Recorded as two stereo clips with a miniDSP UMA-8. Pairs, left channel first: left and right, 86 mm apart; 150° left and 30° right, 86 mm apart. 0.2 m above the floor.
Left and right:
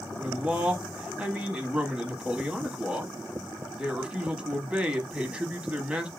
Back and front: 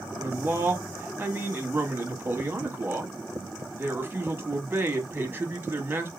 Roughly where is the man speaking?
Ahead right.